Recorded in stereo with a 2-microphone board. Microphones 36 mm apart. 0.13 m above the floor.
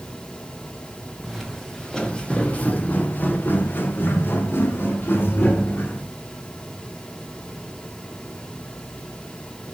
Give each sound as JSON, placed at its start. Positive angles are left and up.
{"t": 1.2, "sound": "footsteps", "side_deg": 5, "distance_m": 1.6}